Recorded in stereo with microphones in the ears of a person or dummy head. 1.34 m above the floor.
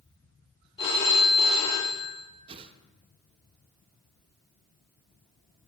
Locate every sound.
0.8 s a phone ringing: 30° left (ahead or behind), 2 m
2.5 s a whoosh: 30° right (ahead or behind), 0.5 m